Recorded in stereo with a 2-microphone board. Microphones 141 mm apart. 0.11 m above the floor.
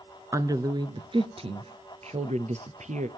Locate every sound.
0.3 s a woman speaking: 20° right (ahead or behind), 1.4 m; by 3.1 s 60° right (ahead or behind), 2.5 m